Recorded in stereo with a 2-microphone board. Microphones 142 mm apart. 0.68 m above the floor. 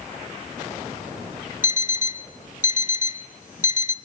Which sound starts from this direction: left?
An alarm clock, at 1.6 s.